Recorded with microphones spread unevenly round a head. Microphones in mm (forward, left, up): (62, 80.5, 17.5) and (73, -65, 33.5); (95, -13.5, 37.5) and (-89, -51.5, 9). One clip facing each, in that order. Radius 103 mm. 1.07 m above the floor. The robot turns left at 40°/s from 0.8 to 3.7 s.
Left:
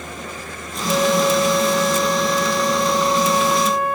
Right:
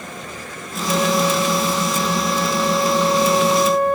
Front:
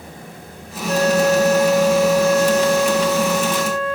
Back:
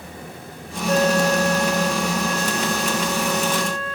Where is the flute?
120° right, 5 m; by 4.0 s 125° left, 5 m.